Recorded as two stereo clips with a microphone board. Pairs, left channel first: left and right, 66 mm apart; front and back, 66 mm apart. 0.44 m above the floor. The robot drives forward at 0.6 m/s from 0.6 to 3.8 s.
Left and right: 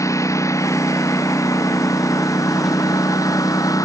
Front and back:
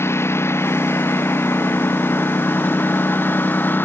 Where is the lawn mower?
50° left; by 3.8 s 60° left.